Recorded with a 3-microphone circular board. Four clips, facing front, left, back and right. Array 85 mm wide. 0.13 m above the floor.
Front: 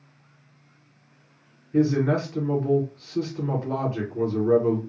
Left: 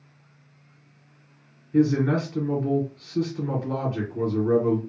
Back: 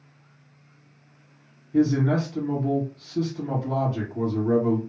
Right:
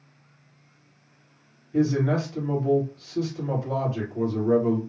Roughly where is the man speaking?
Ahead left.